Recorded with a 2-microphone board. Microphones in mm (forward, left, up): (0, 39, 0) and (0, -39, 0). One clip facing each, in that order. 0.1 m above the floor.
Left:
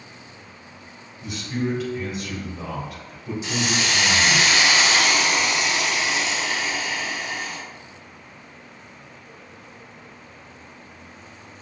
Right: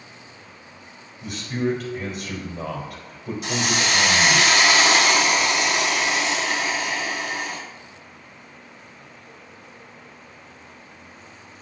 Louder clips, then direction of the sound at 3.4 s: Right 1 dB; 60° right (ahead or behind).